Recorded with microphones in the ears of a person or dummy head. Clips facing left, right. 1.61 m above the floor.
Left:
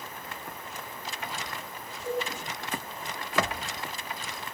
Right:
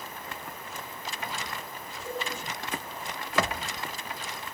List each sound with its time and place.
2.0 s a cowbell: 75° left (ahead or behind), 6 m